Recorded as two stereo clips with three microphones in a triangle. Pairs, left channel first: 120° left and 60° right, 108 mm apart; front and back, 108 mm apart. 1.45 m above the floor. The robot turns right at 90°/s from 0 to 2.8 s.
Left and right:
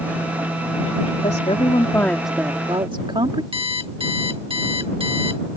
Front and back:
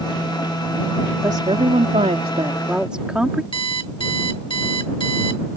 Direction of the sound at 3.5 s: 35° right.